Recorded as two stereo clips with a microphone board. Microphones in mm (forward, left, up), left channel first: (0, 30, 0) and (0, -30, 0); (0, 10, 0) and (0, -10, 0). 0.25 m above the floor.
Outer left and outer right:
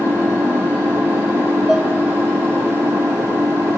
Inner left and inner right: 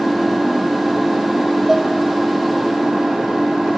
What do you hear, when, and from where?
0.0 s an engine running: 50° right (ahead or behind), 5.5 m
1.7 s dishes clattering: 10° right (ahead or behind), 4.5 m